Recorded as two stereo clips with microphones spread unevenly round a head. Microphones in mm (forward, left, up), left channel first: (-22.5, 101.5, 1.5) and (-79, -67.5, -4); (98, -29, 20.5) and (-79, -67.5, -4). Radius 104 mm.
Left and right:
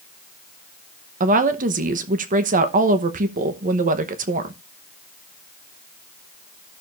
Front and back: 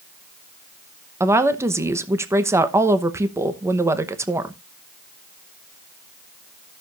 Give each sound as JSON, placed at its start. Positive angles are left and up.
{"t": 1.2, "sound": "a woman speaking", "azimuth_deg": -105, "distance_m": 0.9}